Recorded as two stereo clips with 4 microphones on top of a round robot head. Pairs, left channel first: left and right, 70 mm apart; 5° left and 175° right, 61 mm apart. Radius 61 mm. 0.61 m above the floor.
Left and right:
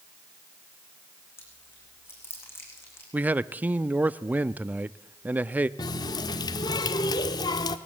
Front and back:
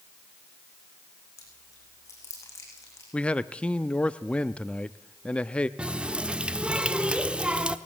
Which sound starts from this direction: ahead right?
A man speaking, at 3.1 s.